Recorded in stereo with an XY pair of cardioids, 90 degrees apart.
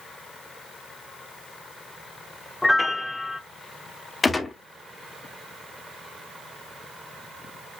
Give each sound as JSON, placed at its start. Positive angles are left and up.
{"t": 2.6, "sound": "a piano", "azimuth_deg": 15, "distance_m": 0.6}
{"t": 4.2, "sound": "a gunshot", "azimuth_deg": 30, "distance_m": 0.9}